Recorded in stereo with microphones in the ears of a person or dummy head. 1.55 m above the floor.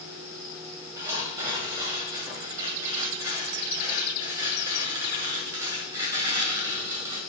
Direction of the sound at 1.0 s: 20° right (ahead or behind).